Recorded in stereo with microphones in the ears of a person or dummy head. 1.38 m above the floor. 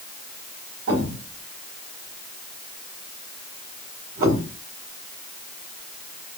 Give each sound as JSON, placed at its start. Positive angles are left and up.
{"t": 0.9, "sound": "a thud", "side_deg": -35, "distance_m": 1.3}